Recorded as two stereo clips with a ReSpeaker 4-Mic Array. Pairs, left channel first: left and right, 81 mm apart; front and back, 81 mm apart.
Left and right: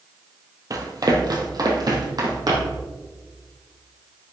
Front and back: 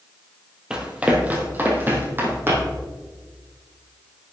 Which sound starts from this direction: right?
Running footsteps, at 0.7 s.